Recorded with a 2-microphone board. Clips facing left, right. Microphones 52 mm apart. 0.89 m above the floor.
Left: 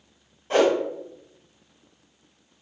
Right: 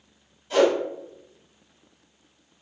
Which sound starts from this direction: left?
A whoosh, at 0.5 s.